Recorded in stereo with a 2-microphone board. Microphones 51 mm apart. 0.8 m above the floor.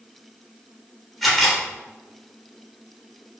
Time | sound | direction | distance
1.2 | a camera shutter | centre (ahead or behind) | 3.5 m